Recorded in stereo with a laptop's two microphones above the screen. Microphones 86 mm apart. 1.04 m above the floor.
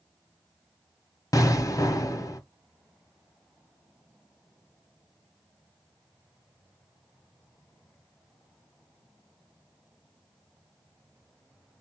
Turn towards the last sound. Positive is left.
turn(degrees=45)  # may be behind; listen again after turning